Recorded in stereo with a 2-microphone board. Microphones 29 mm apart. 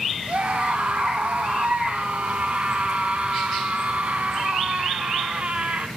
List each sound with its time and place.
0.3 s a scream: 45° right (ahead or behind), 2.5 m